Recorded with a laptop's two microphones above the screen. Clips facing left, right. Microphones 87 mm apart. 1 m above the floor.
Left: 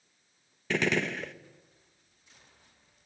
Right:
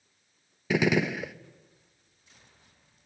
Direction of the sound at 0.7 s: 10° right (ahead or behind).